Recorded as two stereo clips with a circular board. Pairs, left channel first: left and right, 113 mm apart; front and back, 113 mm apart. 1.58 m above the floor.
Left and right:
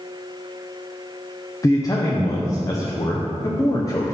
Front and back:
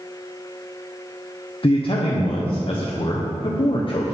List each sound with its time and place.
1.6 s a man speaking: 35° left, 0.7 m